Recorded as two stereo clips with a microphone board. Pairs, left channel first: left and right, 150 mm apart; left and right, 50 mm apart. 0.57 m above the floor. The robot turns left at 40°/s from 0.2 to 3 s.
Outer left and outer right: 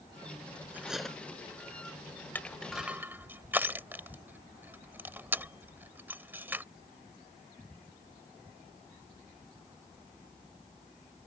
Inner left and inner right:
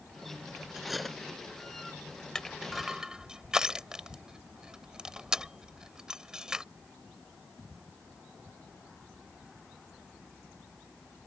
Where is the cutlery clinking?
10° right (ahead or behind); by 1.2 s 5° left (ahead or behind).